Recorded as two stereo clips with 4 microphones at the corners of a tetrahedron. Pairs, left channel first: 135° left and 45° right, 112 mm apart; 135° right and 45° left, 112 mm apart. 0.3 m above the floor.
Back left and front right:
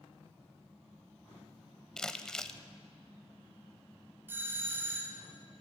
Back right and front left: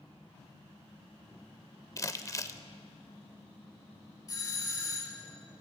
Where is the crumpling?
150° right, 0.5 m.